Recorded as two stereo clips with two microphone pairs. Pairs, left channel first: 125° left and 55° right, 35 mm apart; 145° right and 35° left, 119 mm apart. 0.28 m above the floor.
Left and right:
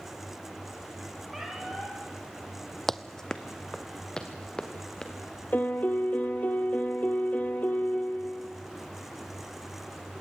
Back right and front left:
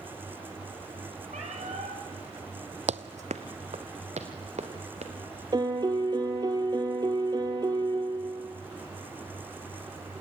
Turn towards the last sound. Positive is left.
turn(degrees=90)